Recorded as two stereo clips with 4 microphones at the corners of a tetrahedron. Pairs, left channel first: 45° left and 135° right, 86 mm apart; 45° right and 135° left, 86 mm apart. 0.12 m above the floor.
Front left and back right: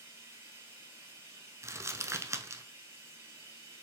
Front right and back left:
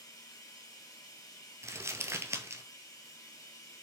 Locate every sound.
0.0 s running water: 85° right, 2.5 m
1.6 s crumpling: straight behind, 0.5 m